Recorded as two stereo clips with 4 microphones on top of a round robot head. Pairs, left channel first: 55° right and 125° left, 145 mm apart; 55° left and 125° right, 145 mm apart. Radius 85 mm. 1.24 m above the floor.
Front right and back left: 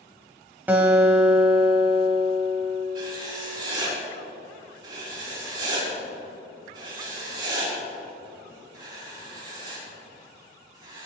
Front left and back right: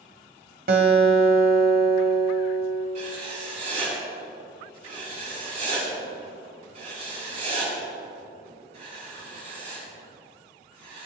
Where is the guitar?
155° right, 1.7 m.